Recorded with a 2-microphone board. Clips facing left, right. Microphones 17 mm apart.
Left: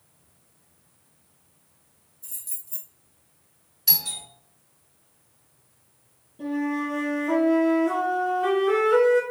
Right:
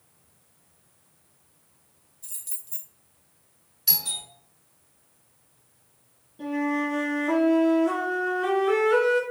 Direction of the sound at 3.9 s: Centre (ahead or behind).